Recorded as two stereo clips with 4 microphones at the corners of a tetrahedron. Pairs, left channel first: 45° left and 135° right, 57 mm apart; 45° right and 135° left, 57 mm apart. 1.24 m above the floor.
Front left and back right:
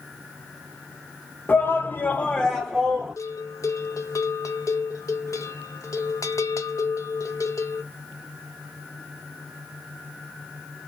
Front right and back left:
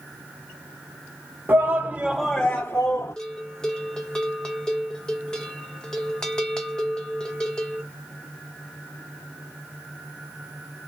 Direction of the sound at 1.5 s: 90° left.